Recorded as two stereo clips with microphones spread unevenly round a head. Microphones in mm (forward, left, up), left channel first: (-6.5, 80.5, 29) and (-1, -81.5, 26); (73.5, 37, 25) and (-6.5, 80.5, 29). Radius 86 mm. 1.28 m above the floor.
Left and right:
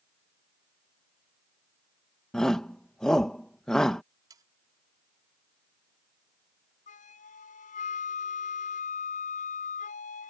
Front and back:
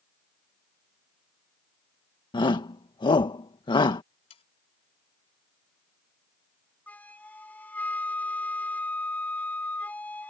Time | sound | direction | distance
2.3 | a shout | 5° left | ?
4.3 | sawing | 20° right | ?
6.9 | a flute | 45° left | ?